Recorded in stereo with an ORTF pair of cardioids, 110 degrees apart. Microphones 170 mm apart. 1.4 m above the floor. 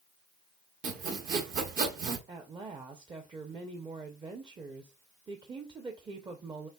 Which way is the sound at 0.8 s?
50° right.